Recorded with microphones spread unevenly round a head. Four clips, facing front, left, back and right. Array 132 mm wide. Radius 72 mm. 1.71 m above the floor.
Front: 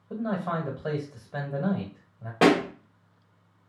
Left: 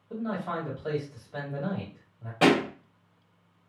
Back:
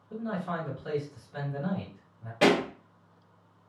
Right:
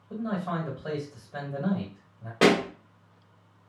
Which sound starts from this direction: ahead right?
A pop, at 2.4 s.